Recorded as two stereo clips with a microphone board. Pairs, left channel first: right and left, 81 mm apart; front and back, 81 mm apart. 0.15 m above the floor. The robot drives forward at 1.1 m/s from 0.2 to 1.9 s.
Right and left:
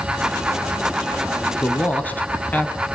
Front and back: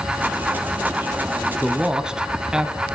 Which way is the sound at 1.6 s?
80° right.